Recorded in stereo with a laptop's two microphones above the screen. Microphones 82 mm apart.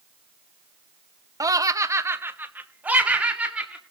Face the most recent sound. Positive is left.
turn(degrees=-10)  # may be behind; listen again after turning